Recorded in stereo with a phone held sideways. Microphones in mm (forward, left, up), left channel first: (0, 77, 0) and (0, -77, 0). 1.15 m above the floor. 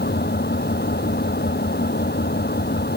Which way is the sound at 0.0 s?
80° left.